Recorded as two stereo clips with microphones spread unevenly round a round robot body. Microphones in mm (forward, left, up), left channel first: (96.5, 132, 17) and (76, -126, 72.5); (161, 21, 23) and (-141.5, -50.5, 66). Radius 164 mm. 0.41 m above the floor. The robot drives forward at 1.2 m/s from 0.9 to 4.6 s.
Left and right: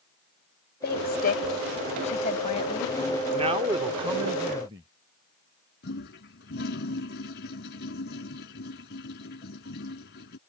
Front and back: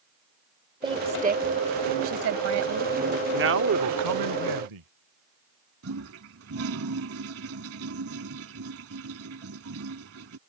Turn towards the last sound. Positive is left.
turn(degrees=145)